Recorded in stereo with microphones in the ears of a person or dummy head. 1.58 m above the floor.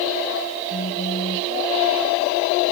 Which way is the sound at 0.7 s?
35° left (ahead or behind).